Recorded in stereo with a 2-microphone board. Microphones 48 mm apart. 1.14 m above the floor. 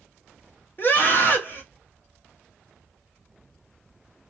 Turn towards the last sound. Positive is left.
turn(degrees=40)  # may be behind; listen again after turning